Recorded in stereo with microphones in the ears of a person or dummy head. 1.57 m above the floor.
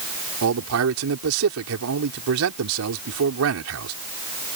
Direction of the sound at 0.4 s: 85° right.